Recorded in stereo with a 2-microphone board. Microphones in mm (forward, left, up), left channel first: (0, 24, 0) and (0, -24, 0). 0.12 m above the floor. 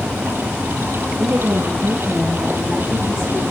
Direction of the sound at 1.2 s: 45° right (ahead or behind).